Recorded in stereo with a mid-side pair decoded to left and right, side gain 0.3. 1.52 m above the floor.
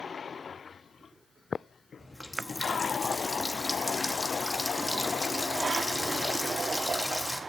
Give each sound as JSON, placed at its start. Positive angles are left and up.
{"t": 2.0, "sound": "a running tap", "azimuth_deg": 15, "distance_m": 1.9}